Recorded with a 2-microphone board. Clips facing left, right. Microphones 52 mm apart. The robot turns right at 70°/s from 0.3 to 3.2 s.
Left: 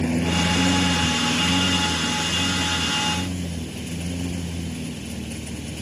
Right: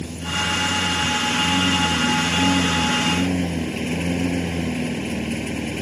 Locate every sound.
0.0 s a lawn mower: 105° left; by 5.8 s 55° right